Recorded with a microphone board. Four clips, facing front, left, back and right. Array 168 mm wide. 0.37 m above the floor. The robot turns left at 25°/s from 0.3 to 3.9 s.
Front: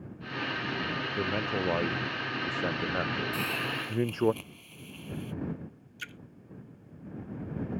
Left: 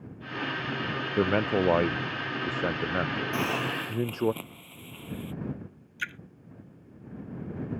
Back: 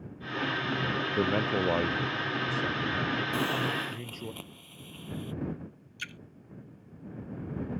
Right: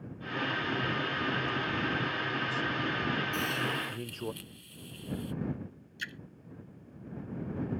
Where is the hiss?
110° left; by 5.3 s 100° left.